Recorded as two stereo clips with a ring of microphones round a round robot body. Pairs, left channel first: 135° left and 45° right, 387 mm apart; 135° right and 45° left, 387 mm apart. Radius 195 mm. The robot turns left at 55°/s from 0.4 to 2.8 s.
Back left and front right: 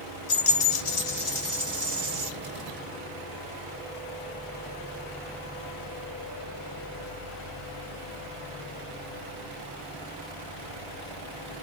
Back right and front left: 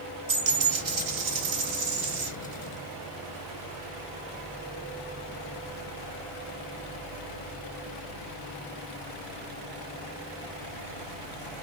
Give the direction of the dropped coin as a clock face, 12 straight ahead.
8 o'clock.